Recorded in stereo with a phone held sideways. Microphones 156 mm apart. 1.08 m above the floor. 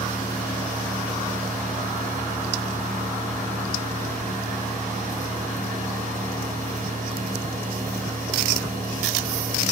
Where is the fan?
50° right (ahead or behind), 2 m.